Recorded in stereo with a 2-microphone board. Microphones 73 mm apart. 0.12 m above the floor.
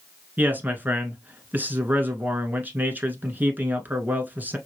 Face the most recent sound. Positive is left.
turn(degrees=-25)  # may be behind; listen again after turning